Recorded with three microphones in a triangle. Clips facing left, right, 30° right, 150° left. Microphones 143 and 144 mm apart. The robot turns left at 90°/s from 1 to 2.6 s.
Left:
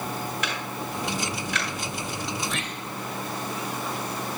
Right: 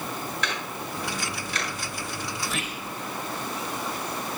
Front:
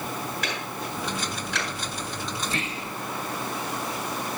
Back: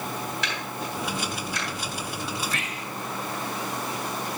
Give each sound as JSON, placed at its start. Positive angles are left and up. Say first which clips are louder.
{"t": 0.4, "sound": "ticking", "louder": "left 1 dB, even", "azimuth_deg": 5, "distance_m": 6.5}
{"t": 2.4, "sound": "whispering", "louder": "left 1 dB, front 1 dB", "azimuth_deg": 5, "distance_m": 0.8}